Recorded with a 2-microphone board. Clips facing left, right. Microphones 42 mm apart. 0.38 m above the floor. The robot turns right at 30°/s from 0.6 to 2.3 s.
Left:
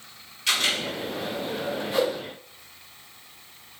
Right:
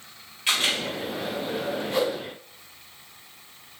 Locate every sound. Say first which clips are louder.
0.5 s a camera shutter: even; 25° right (ahead or behind), 1.3 m
1.9 s a whoosh: left 1 dB; 5° left (ahead or behind), 1.6 m; by 2.1 s centre (ahead or behind), 1.6 m